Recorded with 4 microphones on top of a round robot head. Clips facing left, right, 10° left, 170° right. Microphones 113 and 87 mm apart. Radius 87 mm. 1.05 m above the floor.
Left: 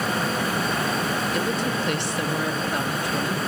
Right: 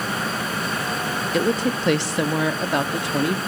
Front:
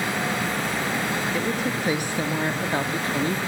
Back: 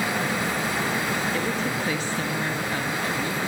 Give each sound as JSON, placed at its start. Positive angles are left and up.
{"t": 1.3, "sound": "a woman speaking", "azimuth_deg": -80, "distance_m": 1.8}